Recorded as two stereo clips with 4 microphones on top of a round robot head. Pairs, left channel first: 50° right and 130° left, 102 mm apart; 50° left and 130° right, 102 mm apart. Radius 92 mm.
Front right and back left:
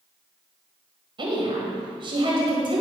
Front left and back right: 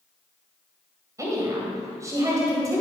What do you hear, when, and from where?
1.2 s a woman speaking: 170° left, 1.8 m